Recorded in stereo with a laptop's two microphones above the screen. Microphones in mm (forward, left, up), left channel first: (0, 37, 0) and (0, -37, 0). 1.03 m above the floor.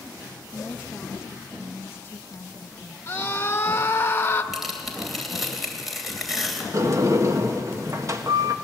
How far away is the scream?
About 1.4 m.